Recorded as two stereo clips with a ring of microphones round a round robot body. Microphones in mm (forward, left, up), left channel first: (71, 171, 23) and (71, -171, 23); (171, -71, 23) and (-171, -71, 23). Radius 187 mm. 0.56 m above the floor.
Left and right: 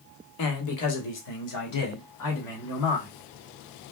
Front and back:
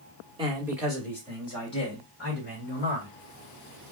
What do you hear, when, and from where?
0.4 s a man speaking: 105° left, 1.5 m; by 3.1 s 60° left, 3 m